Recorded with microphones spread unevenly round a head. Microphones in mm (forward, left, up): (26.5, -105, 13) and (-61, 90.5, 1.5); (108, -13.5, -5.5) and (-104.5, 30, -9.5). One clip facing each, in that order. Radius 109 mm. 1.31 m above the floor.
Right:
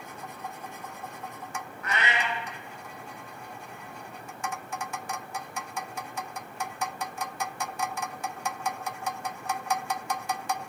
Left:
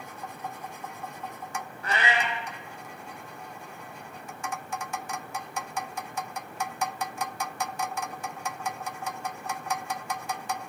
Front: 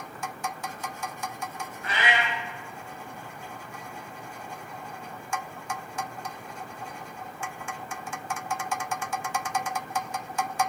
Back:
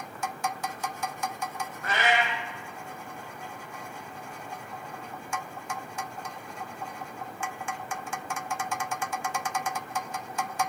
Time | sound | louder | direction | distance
1.8 | a cat meowing | left 2 dB, back 2 dB | 160° left | 0.6 m